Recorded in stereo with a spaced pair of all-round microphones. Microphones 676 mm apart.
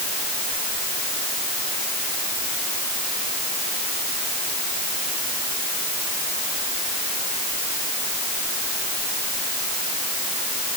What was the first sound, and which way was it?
Only background noise.